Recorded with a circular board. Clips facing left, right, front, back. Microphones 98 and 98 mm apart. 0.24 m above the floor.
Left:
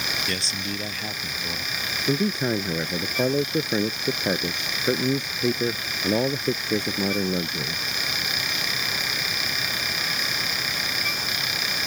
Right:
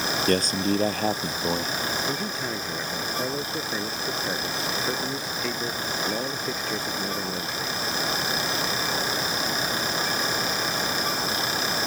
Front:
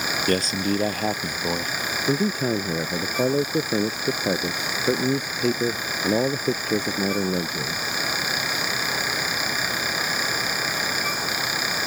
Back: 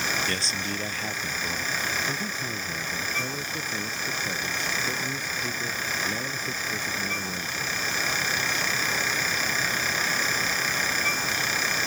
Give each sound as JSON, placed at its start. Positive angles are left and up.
{"t": 0.3, "sound": "a man speaking", "azimuth_deg": -45}
{"t": 2.1, "sound": "a man speaking", "azimuth_deg": 25}